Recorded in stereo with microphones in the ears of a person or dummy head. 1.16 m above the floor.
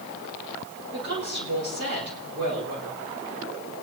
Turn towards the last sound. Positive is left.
turn(degrees=-55)  # may be behind; listen again after turning